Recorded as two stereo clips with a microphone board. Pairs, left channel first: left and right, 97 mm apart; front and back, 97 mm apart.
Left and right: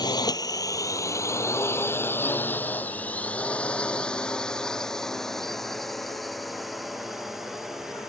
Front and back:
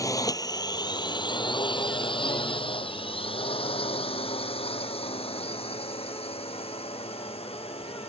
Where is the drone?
50° left; by 8.1 s 5° right.